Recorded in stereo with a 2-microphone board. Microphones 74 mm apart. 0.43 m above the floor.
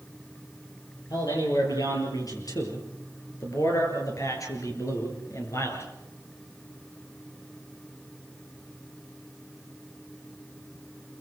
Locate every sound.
1.1 s a man speaking: 60° left (ahead or behind), 8 m; by 5.9 s 40° left (ahead or behind), 5.5 m